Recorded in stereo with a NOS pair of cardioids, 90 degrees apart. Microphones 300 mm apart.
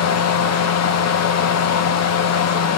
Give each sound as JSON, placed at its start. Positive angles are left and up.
{"t": 0.0, "sound": "a fan", "azimuth_deg": 60, "distance_m": 1.2}